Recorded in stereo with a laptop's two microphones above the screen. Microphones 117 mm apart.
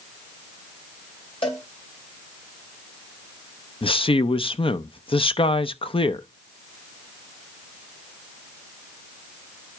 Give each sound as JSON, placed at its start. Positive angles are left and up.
{"t": 1.4, "sound": "a cowbell", "side_deg": 55, "distance_m": 2.5}
{"t": 3.8, "sound": "a man speaking", "side_deg": 50, "distance_m": 0.5}